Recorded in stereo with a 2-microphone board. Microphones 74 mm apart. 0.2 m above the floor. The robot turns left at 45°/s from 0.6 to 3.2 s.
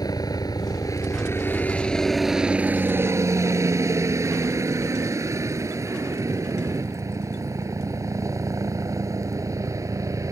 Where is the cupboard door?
No cupboard door in this recording.